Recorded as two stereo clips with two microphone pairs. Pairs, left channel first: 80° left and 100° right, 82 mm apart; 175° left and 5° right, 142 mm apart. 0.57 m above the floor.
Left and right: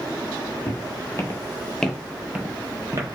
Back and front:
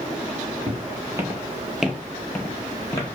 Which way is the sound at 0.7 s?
55° left.